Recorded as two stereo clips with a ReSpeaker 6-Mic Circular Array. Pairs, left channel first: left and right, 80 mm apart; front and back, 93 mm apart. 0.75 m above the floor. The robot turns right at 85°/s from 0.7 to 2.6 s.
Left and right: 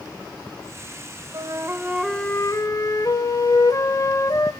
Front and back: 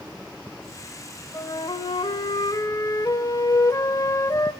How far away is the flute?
About 1.4 m.